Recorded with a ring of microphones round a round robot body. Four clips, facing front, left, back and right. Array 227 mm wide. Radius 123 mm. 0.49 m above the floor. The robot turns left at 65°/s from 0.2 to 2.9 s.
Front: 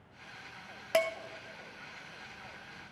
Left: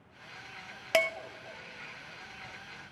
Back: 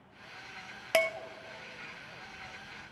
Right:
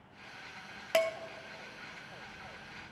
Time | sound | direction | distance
0.9 | dishes clattering | 130° left | 0.6 m